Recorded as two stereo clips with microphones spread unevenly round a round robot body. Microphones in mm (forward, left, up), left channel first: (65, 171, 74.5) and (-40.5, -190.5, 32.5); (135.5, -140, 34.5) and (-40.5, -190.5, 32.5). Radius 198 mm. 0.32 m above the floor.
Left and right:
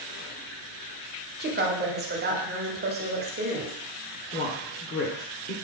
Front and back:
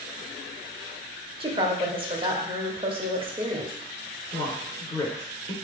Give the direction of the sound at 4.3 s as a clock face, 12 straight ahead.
10 o'clock.